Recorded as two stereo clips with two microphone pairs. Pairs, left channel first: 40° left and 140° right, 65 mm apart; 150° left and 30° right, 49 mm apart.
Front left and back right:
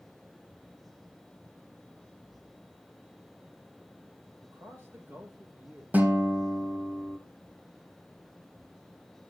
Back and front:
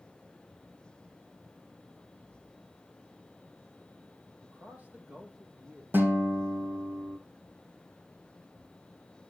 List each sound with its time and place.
4.4 s a man speaking: 90° right, 5.5 m
5.9 s a guitar: 75° right, 2.5 m